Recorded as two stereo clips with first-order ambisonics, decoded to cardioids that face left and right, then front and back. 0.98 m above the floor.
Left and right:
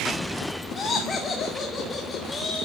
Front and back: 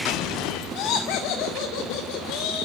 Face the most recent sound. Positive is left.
turn(degrees=20)